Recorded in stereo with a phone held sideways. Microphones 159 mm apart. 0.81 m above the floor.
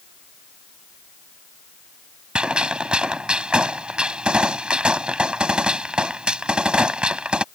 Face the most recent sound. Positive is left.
turn(degrees=-5)  # may be behind; listen again after turning